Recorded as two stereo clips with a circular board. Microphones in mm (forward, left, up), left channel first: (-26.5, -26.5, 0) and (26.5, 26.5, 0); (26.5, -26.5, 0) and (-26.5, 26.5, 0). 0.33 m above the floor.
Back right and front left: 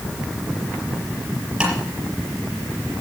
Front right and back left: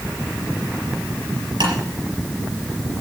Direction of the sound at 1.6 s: 125° left.